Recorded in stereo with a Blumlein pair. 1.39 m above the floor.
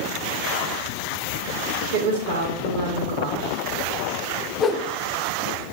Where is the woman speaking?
45° right, 1.8 m.